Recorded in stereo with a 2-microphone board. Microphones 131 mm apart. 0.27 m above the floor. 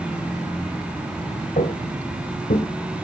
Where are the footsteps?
80° left, 2 m; by 2.7 s 75° left (ahead or behind), 1.6 m.